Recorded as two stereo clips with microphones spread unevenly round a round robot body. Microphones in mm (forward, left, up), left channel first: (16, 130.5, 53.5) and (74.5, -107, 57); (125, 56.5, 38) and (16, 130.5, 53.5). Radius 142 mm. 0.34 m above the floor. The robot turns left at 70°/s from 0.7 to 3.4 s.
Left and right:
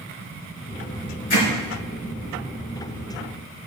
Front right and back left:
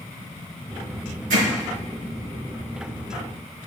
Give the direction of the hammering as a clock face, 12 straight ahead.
7 o'clock.